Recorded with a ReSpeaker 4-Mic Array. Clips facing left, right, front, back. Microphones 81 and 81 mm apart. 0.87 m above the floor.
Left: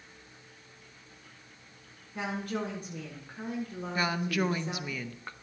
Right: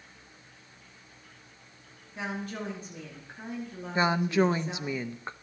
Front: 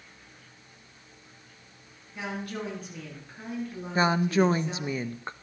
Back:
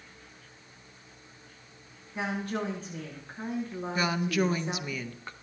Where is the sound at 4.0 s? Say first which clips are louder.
Right 6 dB, front 5 dB; 40° right, 0.6 m.